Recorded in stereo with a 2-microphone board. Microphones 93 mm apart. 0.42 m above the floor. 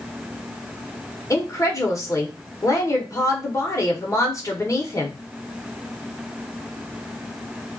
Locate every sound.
1.3 s a woman speaking: 35° left (ahead or behind), 0.9 m